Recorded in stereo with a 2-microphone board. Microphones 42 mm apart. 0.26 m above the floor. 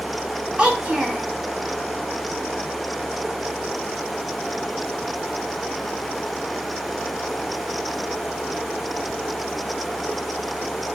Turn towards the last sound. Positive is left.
turn(degrees=-25)  # may be behind; listen again after turning